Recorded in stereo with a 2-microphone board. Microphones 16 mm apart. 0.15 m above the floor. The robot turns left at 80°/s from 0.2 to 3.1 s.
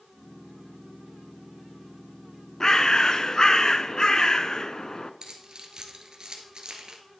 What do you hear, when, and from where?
2.6 s a bird: 115° left, 0.5 m; by 5.1 s 75° left, 0.5 m
5.2 s keys jangling: 55° right (ahead or behind), 1.6 m